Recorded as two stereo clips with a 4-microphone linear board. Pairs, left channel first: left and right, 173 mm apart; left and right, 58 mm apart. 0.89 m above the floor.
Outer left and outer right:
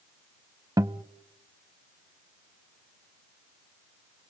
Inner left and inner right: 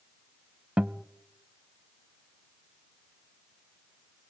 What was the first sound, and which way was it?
A guitar, 20° right (ahead or behind).